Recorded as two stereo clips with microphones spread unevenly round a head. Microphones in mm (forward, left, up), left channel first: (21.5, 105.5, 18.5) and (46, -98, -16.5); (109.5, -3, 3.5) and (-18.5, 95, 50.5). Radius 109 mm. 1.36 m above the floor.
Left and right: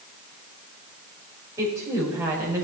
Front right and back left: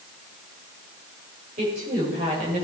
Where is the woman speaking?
160° right, 5 m.